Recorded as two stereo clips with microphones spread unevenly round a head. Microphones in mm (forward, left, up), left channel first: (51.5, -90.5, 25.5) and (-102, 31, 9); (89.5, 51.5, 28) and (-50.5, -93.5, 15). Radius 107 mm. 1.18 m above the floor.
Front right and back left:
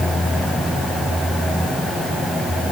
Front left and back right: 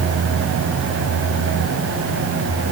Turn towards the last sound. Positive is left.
No sound to turn to.